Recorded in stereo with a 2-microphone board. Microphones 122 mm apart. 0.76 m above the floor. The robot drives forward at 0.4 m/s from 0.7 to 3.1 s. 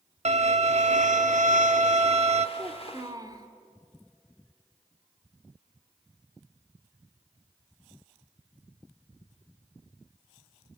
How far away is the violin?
About 0.8 m.